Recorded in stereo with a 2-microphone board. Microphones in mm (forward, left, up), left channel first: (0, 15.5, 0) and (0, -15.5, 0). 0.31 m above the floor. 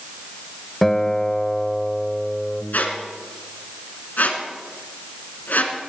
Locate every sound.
0.8 s a guitar: 10° left (ahead or behind), 1.1 m
2.7 s a squeak: 70° left (ahead or behind), 2.5 m